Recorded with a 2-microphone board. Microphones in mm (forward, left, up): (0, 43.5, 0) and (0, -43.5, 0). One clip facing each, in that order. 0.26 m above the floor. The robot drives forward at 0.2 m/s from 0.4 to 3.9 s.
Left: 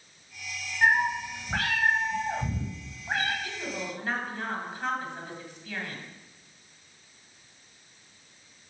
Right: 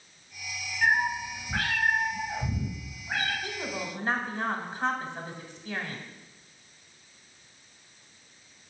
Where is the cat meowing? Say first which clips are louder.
Left 2 dB; 45° left (ahead or behind), 3.5 m; by 3.3 s 55° left (ahead or behind), 3 m.